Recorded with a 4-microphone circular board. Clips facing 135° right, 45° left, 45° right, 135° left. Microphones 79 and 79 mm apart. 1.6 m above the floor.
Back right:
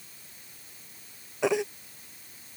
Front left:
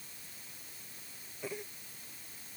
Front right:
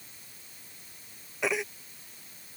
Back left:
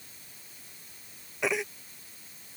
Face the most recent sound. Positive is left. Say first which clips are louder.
# back right 16 dB, even
turn(degrees=-135)